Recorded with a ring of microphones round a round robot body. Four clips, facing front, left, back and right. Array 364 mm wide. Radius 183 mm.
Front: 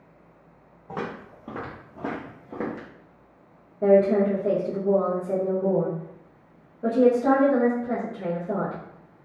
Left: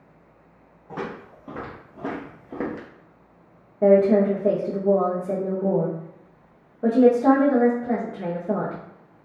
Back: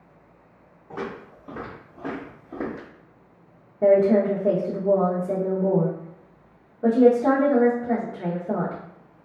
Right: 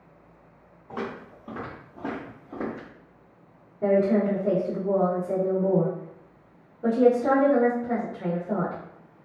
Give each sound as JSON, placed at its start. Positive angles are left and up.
{"t": 0.9, "sound": "footsteps", "azimuth_deg": 10, "distance_m": 1.6}
{"t": 3.8, "sound": "a woman speaking", "azimuth_deg": 110, "distance_m": 0.7}